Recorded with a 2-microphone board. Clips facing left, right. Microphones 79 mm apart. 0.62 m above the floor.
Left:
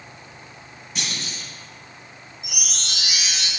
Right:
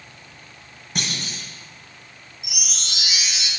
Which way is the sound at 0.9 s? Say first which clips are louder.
Right 2 dB; 55° right (ahead or behind).